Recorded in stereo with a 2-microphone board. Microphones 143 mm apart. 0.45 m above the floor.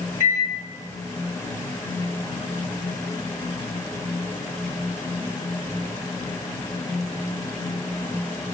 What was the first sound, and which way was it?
A microwave, 70° left (ahead or behind).